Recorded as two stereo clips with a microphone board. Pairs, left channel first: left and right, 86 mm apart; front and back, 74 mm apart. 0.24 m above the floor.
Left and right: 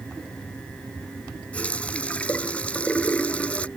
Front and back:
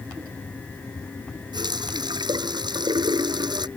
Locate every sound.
1.5 s a running tap: 165° left